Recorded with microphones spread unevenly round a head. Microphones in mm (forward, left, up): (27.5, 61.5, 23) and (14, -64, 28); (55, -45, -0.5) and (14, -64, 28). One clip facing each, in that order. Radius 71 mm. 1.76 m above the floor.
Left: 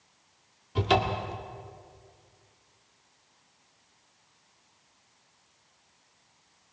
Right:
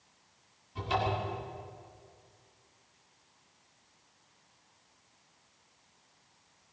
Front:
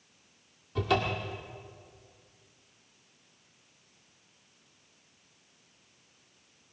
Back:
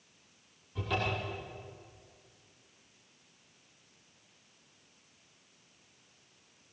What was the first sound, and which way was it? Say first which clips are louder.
A cupboard door: left 6 dB, front 5 dB; 80° left.